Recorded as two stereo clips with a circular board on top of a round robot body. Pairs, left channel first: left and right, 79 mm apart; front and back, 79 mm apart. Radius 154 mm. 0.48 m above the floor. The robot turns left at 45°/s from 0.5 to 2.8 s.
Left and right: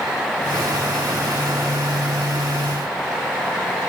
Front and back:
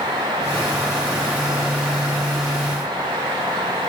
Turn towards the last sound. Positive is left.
No sound to turn to.